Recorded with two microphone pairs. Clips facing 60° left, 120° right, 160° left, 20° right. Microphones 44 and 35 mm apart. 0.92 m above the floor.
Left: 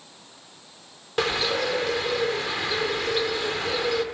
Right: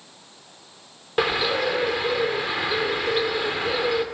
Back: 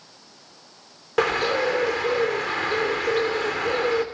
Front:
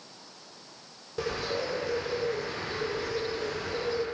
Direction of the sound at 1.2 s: 165° left.